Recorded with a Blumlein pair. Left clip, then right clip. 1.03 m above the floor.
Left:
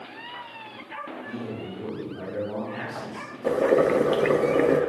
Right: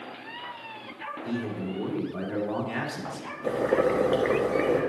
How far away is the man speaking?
About 2.5 m.